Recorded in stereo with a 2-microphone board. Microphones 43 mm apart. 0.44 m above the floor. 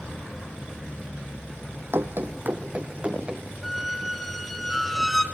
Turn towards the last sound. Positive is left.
turn(degrees=0)  # may be behind; listen again after turning